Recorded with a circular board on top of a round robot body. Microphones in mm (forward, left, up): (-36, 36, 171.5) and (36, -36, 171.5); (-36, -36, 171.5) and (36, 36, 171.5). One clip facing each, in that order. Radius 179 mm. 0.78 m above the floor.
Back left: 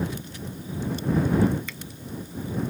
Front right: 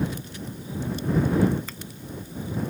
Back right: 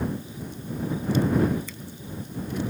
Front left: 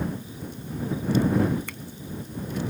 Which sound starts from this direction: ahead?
A finger snap, at 1.7 s.